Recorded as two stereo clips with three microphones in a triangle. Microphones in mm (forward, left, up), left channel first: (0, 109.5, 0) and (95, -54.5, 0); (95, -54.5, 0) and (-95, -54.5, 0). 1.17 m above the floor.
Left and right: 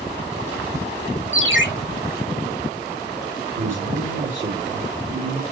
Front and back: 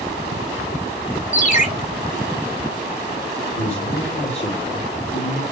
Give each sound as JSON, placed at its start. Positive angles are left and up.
{"t": 1.3, "sound": "a ringtone", "azimuth_deg": -50, "distance_m": 2.0}
{"t": 3.6, "sound": "a man speaking", "azimuth_deg": -60, "distance_m": 4.5}